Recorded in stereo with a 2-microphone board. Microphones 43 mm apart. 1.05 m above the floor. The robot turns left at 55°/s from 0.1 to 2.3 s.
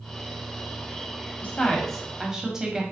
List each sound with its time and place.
1.4 s a woman speaking: 35° left, 0.6 m; by 2.8 s 10° right, 0.6 m